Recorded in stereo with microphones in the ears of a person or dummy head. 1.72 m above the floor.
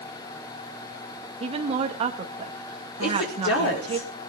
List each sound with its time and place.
1.4 s a woman speaking: 30° right (ahead or behind), 1.9 m
3.0 s a woman speaking: 70° left (ahead or behind), 4.5 m